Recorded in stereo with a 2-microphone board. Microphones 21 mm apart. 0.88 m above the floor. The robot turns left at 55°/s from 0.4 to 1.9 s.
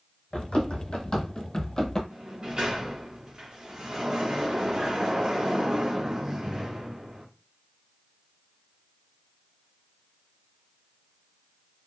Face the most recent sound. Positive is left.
turn(degrees=-40)  # may be behind; listen again after turning